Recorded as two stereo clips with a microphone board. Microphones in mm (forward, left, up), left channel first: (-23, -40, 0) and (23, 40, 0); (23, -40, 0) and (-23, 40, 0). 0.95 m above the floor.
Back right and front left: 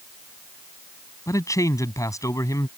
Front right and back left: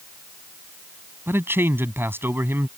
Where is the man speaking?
175° right.